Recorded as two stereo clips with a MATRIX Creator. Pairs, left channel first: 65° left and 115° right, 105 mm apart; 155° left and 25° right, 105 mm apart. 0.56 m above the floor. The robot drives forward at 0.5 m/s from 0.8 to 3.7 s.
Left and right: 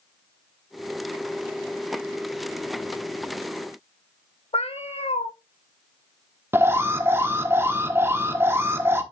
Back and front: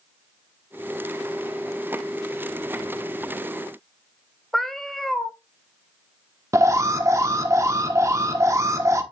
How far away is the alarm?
About 1.0 m.